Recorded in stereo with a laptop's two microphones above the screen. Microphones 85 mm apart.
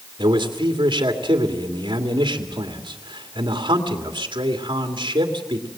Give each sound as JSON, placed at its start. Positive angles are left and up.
{"t": 0.2, "sound": "a man speaking", "side_deg": -60, "distance_m": 2.5}